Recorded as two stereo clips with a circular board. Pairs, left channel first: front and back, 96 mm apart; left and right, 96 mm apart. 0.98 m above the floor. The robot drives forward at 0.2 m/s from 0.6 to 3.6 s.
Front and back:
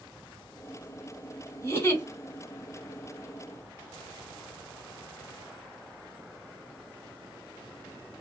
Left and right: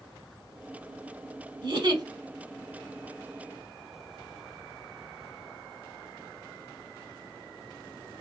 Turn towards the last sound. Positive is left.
turn(degrees=-75)